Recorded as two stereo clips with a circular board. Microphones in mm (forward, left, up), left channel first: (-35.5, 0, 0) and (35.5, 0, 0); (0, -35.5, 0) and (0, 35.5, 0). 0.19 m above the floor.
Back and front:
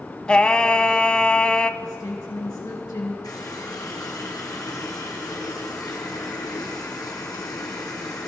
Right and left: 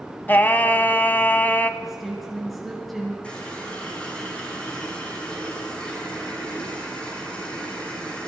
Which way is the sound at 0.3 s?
115° right.